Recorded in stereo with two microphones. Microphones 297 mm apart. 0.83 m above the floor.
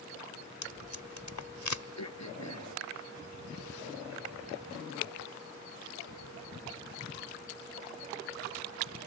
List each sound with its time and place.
0.6 s tape being pulled: 75° left (ahead or behind)
2.0 s throat clearing: 70° left (ahead or behind)